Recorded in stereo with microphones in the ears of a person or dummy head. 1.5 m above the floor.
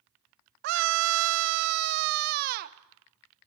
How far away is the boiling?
I don't hear boiling.